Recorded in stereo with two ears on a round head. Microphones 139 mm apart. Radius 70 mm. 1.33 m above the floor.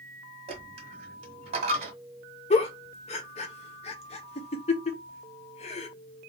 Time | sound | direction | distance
0.5 | a dropped coin | 40° right (ahead or behind) | 1.5 m
2.5 | a giggle | 40° left (ahead or behind) | 0.6 m